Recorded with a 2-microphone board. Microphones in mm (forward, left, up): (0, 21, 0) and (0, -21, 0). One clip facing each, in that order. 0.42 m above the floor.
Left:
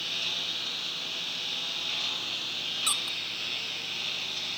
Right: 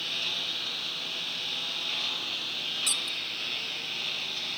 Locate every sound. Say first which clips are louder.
0.0 s a lawn mower: even; 5° right (ahead or behind)
2.9 s a squeak: left 1 dB; 30° left (ahead or behind)